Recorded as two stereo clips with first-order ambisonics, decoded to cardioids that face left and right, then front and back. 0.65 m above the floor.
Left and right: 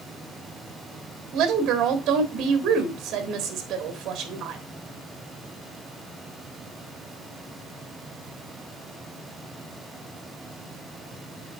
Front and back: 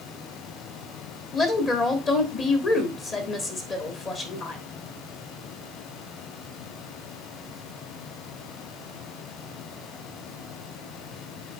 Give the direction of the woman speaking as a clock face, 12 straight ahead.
2 o'clock.